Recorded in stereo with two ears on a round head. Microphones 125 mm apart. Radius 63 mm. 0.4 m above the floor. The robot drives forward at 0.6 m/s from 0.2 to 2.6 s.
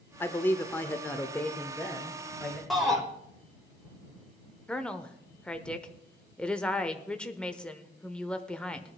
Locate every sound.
0.2 s a man speaking: 15° left (ahead or behind), 0.7 m; by 2.6 s 5° left (ahead or behind), 1.4 m
2.7 s a shout: centre (ahead or behind), 1.2 m
4.7 s a woman speaking: 5° left (ahead or behind), 0.8 m